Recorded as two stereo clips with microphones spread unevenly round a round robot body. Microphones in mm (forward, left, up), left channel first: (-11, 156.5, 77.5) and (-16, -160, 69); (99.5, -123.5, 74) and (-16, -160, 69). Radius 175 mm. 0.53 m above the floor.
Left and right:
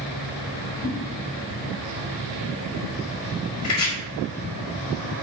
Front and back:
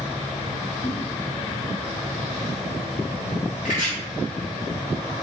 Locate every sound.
0.8 s a whoosh: 80° left, 1.9 m
3.6 s chopping: 130° left, 1.4 m